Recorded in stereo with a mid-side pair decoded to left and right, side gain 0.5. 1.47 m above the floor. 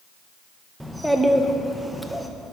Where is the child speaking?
5° right, 1.0 m.